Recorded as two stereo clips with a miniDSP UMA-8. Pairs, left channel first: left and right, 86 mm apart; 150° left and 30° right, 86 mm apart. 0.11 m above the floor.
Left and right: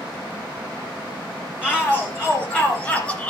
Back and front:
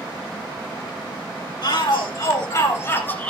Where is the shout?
170° left, 2.5 m; by 3.3 s 120° left, 1.4 m.